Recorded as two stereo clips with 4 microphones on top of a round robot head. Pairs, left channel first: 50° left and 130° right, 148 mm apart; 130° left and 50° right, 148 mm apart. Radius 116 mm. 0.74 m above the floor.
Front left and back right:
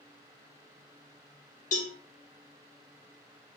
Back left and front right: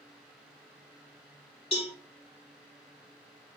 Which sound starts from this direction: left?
A cowbell, at 1.7 s.